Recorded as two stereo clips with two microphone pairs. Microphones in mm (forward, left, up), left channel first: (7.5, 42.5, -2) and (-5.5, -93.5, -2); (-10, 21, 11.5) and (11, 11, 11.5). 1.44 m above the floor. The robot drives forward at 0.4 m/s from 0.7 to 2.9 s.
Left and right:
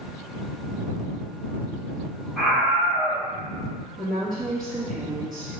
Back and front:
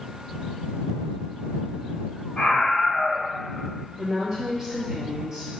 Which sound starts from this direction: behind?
A scream, at 2.4 s.